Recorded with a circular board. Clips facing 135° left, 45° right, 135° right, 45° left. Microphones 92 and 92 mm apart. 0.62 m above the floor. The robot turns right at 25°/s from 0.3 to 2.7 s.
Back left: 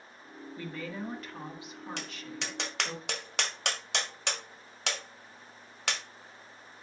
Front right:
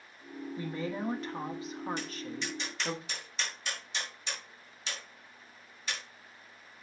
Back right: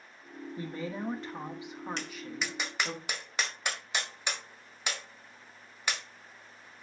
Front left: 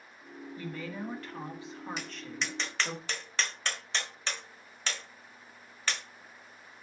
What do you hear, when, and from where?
0.6 s a woman speaking: 95° right, 1.3 m; by 3.0 s 45° right, 1.3 m
2.0 s tapping: 130° left, 1.4 m; by 6.0 s 150° left, 1.4 m